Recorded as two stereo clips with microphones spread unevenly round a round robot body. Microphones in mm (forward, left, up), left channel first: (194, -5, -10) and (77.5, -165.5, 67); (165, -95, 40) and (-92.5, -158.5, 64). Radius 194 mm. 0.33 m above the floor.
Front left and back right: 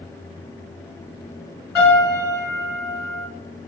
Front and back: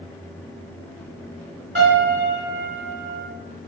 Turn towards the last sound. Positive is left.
turn(degrees=125)